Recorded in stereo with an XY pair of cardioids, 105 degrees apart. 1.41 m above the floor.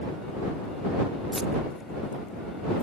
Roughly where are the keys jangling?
Ahead.